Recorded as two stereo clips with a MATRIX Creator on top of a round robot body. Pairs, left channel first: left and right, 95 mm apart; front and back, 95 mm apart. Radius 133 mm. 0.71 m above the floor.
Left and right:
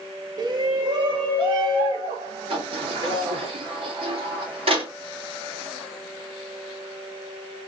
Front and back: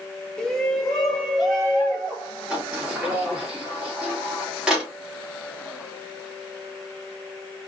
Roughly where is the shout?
Right.